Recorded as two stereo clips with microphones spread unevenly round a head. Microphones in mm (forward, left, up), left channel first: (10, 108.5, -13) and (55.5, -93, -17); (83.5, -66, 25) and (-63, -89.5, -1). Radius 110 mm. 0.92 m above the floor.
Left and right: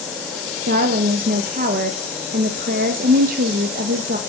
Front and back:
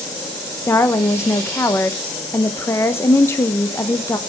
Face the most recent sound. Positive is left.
turn(degrees=-70)